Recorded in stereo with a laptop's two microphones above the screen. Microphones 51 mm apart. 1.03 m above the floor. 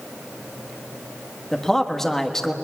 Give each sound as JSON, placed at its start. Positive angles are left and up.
{"t": 1.5, "sound": "a man speaking", "side_deg": 5, "distance_m": 1.4}